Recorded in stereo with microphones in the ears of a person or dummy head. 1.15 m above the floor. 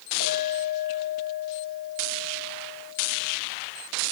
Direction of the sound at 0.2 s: 60° left (ahead or behind).